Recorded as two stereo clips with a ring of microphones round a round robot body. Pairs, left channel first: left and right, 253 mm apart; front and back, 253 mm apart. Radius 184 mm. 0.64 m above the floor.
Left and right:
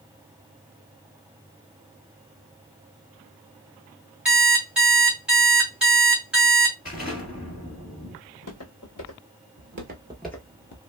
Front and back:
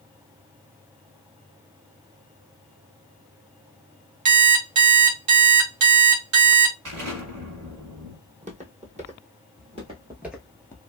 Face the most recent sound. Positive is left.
turn(degrees=75)